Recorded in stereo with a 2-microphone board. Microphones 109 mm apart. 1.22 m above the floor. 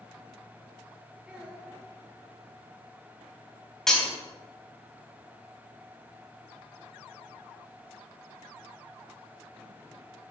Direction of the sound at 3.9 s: 5° left (ahead or behind).